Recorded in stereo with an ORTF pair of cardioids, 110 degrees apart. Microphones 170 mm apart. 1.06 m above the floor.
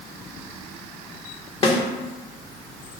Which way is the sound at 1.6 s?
35° left.